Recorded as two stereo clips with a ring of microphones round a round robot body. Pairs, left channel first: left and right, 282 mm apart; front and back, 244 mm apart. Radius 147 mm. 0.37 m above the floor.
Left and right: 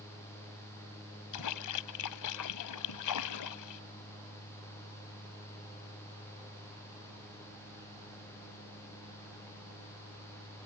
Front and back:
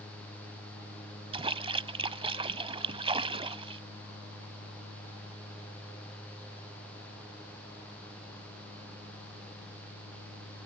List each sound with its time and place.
1.3 s a splash: 110° left